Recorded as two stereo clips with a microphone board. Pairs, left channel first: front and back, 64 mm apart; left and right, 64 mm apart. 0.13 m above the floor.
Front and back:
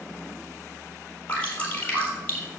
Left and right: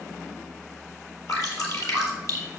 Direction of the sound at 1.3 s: 65° left.